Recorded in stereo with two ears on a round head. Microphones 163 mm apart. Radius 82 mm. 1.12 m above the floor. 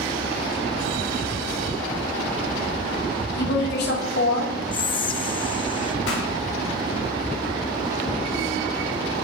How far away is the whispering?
About 0.8 m.